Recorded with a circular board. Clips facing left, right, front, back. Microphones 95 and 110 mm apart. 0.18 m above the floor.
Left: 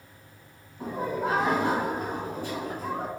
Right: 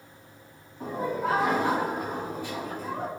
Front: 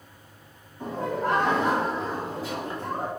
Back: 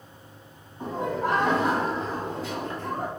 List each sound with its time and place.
0.8 s laughter: 160° left, 1.7 m; by 3.1 s 60° left, 2 m